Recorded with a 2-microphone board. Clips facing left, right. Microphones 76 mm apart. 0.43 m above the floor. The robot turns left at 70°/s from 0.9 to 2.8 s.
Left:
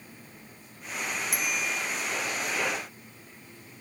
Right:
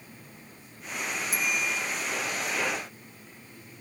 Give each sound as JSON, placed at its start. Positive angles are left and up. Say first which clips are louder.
{"t": 1.3, "sound": "a bicycle bell", "louder": "right 3 dB", "azimuth_deg": 65, "distance_m": 4.0}